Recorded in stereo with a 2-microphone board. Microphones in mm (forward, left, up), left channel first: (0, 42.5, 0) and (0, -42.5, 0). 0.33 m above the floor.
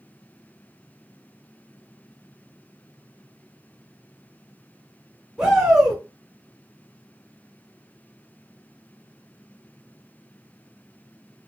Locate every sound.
5.4 s a shout: 5° right (ahead or behind), 0.9 m